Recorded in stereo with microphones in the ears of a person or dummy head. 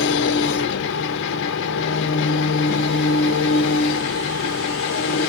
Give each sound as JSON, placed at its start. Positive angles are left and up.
{"t": 0.0, "sound": "an engine running", "side_deg": 60, "distance_m": 0.8}